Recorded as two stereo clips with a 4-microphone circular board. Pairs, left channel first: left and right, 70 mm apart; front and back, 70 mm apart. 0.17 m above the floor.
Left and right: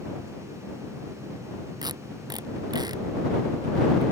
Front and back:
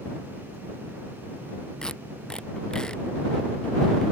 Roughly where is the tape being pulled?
Right.